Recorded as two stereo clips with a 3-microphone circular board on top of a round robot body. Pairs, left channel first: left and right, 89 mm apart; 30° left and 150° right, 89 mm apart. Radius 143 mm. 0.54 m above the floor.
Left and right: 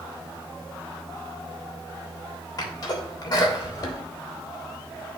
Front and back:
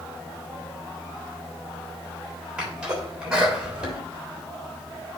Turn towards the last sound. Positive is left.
turn(degrees=130)